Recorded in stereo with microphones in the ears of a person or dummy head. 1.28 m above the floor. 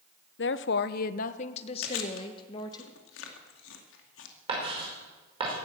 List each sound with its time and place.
0.4 s a woman speaking: 60° left (ahead or behind), 0.7 m; by 2.8 s 30° left (ahead or behind), 2 m
1.8 s chewing: 85° left, 2 m
4.5 s writing: 35° right (ahead or behind), 5 m